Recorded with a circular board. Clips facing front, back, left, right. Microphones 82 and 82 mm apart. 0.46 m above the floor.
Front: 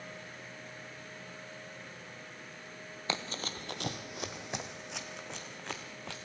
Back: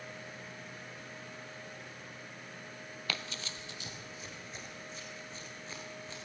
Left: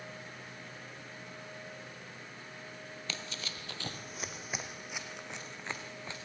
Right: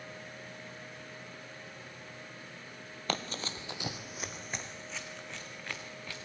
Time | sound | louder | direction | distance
3.1 | running footsteps | front 5 dB, right 9 dB | 60° right | 0.7 m